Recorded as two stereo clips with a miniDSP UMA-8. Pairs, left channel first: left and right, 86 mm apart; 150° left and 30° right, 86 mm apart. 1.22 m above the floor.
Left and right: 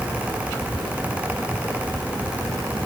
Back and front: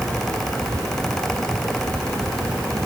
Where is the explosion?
I don't hear an explosion.